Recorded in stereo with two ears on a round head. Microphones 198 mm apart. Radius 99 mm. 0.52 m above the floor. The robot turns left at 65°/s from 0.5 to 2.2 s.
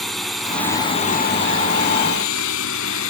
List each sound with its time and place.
0.0 s a drone: centre (ahead or behind); by 3.1 s 70° left (ahead or behind)